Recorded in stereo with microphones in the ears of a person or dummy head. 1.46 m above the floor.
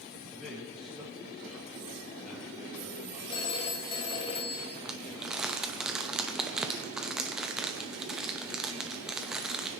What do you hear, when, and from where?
0.3 s a man speaking: centre (ahead or behind), 1.8 m
3.3 s a phone ringing: 25° left (ahead or behind), 0.6 m
4.8 s crumpling: 5° right (ahead or behind), 1.0 m